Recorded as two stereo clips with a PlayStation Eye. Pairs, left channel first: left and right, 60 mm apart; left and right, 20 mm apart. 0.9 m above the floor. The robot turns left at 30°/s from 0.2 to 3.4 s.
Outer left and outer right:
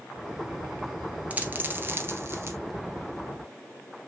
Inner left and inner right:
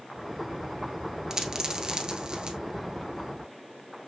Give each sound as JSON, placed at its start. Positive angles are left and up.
{"t": 1.3, "sound": "a dropped coin", "side_deg": -25, "distance_m": 1.4}